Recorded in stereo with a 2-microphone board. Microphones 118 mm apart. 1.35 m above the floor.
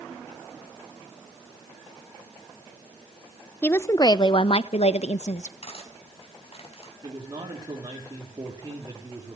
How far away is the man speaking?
About 3.5 m.